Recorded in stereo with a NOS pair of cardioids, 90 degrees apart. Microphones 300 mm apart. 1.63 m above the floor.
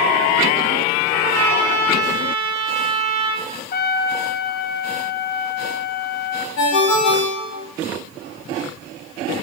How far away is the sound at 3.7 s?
About 0.6 m.